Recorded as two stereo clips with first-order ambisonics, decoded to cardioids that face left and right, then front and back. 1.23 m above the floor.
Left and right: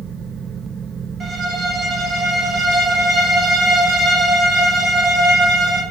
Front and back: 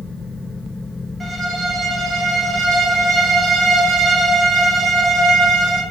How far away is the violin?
About 0.8 m.